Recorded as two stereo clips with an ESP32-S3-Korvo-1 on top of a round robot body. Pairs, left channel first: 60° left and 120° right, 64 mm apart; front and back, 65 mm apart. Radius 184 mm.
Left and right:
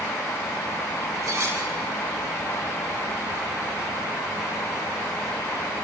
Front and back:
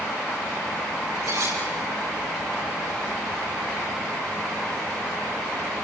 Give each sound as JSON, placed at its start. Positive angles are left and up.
{"t": 1.2, "sound": "cutlery clinking", "azimuth_deg": -160, "distance_m": 8.0}